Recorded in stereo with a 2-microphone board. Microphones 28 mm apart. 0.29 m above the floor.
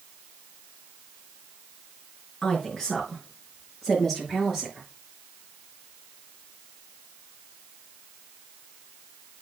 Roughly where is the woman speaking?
Centre.